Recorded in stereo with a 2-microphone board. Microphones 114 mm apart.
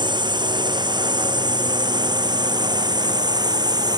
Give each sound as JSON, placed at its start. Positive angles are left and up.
{"t": 0.0, "sound": "a drone", "side_deg": -40}